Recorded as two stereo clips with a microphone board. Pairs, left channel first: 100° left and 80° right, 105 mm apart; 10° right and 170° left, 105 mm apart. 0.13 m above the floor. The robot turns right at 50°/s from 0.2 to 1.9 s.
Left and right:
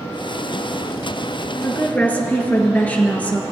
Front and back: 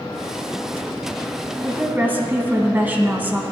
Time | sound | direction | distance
1.6 | a woman speaking | 125° left | 1.3 m